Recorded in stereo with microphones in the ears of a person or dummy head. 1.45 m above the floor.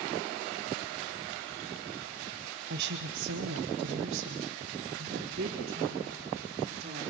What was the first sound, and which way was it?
A woman speaking, 60° right (ahead or behind).